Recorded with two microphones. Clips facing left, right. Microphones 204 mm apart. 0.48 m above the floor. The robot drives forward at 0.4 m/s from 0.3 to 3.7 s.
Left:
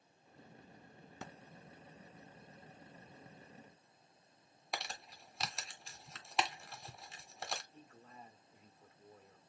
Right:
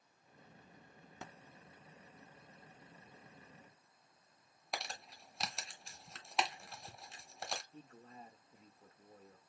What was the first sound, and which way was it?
Crumpling, centre (ahead or behind).